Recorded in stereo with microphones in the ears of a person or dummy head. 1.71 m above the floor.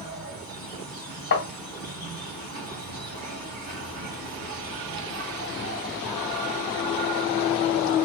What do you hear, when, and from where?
0.0 s an insect: 40° right (ahead or behind), 2.5 m
1.3 s tapping: 45° left (ahead or behind), 1.2 m